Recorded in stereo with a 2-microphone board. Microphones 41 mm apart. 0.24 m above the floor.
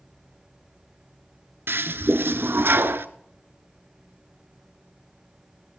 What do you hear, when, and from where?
1.7 s a toilet flushing: 70° right (ahead or behind), 0.7 m